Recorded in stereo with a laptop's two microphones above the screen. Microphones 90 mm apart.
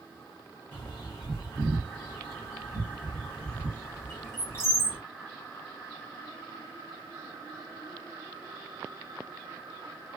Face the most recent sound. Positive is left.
turn(degrees=30)  # may be behind; listen again after turning